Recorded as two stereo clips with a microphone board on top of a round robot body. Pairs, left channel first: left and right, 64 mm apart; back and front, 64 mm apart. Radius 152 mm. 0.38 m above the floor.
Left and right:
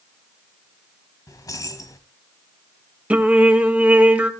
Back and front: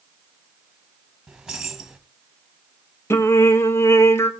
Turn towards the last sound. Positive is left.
turn(degrees=-150)